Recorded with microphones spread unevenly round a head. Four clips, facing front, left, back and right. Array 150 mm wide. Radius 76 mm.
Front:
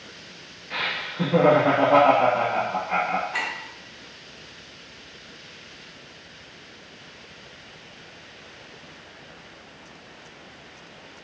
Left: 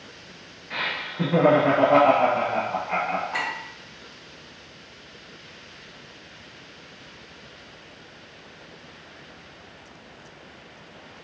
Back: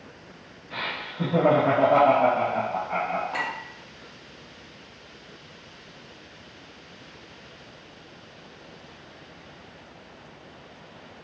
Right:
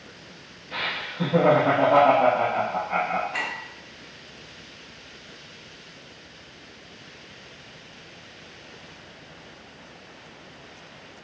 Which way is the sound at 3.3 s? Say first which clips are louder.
Left 2 dB, even; 145° left.